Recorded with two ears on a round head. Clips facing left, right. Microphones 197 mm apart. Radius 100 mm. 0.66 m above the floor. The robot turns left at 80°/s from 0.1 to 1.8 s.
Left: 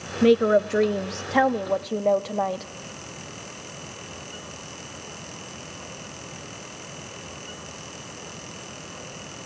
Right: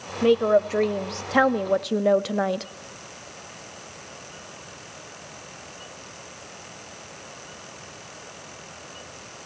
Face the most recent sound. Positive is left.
turn(degrees=-15)  # may be behind; listen again after turning